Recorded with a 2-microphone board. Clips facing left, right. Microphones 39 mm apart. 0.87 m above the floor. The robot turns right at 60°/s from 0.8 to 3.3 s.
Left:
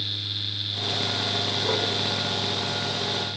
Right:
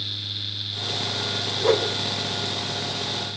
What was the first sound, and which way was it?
A whoosh, 65° right (ahead or behind).